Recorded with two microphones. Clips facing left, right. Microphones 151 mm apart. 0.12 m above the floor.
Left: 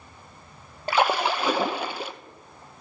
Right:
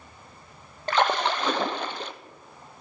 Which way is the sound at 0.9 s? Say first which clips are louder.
Left 1 dB; 10° left (ahead or behind).